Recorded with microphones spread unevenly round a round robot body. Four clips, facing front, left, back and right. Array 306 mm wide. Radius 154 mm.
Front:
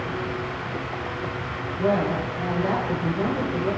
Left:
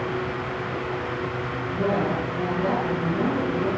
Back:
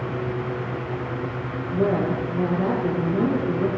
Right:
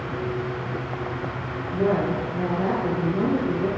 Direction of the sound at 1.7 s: 175° left.